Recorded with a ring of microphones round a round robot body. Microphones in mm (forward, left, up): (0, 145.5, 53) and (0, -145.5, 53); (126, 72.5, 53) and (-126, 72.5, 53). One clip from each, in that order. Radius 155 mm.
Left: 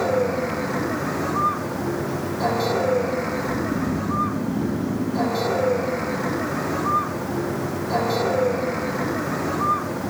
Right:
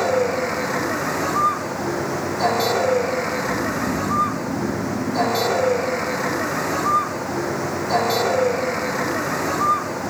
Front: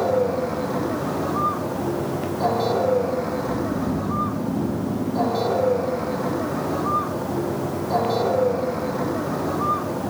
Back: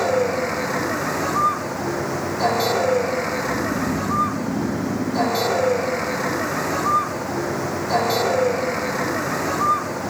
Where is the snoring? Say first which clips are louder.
Right 3 dB, back 2 dB; 155° left.